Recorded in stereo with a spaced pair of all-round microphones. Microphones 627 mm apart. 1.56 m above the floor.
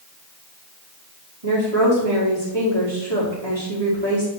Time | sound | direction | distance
1.4 | a woman speaking | 65° right (ahead or behind) | 2.5 m